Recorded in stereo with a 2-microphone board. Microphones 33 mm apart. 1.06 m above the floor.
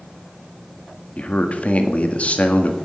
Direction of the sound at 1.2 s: 45° left (ahead or behind).